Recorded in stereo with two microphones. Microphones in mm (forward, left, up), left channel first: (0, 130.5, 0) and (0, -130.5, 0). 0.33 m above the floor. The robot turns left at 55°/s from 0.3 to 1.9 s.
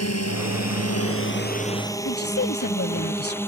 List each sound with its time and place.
0.0 s a drone: 70° left (ahead or behind); by 3.5 s 10° left (ahead or behind)
2.0 s a woman speaking: 60° left (ahead or behind)